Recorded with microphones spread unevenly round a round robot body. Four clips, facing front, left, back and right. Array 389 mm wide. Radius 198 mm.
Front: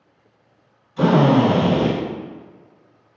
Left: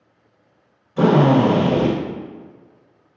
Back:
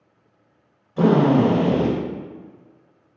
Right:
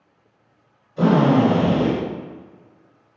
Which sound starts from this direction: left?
A drill, at 1.0 s.